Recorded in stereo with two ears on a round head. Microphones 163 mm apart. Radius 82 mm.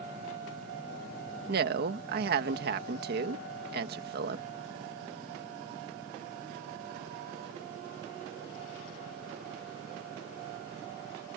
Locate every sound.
1.5 s a woman speaking: 60° right (ahead or behind)